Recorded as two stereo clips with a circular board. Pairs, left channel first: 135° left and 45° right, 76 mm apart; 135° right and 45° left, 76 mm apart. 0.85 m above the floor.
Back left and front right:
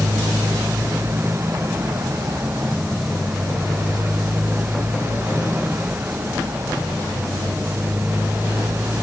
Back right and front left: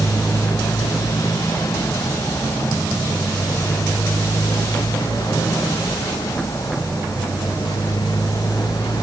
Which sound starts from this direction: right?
A motorcycle, at 0.0 s.